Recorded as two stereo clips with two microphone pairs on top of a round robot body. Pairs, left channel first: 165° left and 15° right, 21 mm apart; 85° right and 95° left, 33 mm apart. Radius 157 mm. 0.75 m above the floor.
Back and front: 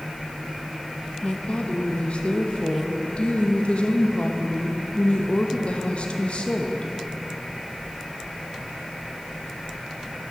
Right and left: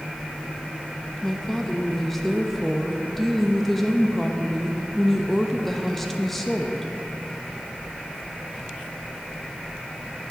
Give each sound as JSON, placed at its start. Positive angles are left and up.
{"t": 1.2, "sound": "a woman speaking", "azimuth_deg": -170, "distance_m": 0.8}